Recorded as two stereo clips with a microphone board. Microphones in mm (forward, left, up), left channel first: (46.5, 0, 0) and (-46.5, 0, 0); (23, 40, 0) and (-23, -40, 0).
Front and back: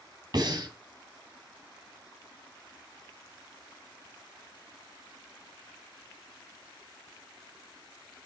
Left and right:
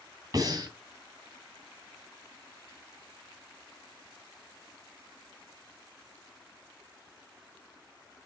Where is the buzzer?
No buzzer in this recording.